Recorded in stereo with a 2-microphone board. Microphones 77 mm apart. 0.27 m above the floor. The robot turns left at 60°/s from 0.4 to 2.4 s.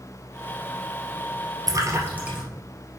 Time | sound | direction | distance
1.7 | a splash | 55° right (ahead or behind) | 2.5 m